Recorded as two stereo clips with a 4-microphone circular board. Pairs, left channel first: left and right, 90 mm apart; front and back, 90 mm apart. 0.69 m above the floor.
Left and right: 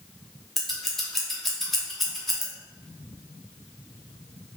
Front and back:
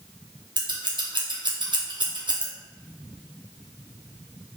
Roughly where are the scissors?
Behind.